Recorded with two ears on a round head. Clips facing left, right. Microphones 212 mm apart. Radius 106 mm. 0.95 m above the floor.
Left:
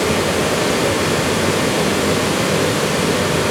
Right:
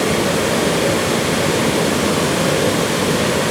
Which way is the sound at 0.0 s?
25° right (ahead or behind).